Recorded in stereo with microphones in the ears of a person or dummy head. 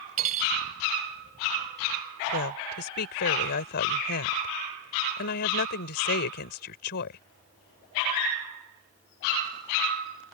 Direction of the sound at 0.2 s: 45° right (ahead or behind).